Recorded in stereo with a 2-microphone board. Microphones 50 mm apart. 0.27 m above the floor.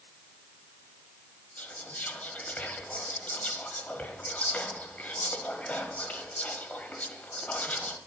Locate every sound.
1.6 s whispering: 30° left (ahead or behind), 1.1 m